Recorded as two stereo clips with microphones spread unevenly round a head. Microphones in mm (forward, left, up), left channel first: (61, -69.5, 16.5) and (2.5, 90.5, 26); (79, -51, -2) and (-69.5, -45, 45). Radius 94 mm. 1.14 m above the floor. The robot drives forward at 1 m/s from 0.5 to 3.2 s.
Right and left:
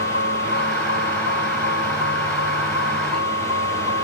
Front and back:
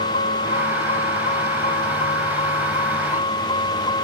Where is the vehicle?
40° right; by 4.0 s 60° right.